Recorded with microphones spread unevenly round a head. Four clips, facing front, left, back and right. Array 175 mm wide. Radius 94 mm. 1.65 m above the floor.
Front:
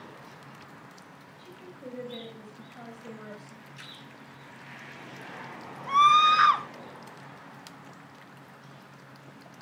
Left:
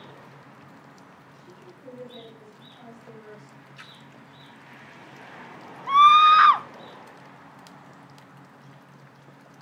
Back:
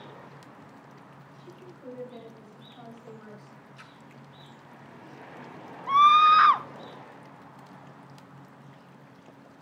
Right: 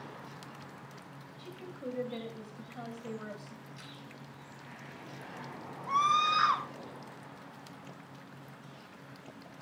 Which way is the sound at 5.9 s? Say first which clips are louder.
Left 13 dB, back 2 dB; 85° left.